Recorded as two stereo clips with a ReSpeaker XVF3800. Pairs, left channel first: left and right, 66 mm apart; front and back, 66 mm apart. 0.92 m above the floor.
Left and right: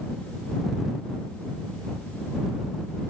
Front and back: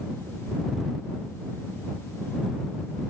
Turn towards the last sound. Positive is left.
No sound to turn to.